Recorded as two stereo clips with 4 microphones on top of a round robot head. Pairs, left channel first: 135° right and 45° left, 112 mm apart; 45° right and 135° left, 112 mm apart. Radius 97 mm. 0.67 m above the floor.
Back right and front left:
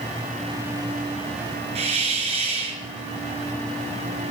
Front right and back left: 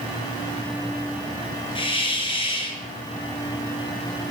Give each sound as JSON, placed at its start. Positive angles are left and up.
{"t": 1.8, "sound": "a hiss", "azimuth_deg": 5, "distance_m": 4.0}